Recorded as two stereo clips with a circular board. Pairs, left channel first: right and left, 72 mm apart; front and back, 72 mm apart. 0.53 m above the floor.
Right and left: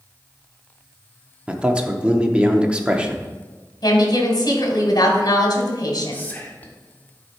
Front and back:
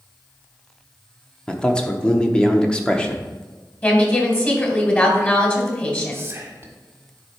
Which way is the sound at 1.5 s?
50° left.